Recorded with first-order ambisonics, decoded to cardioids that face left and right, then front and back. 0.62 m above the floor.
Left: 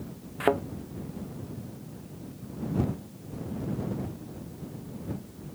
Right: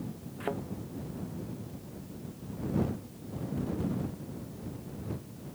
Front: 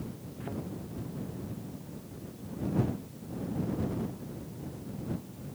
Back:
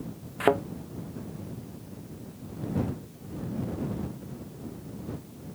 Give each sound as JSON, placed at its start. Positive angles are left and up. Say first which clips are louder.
{"t": 0.4, "sound": "a thud", "louder": "left 10 dB, back 18 dB", "azimuth_deg": 150}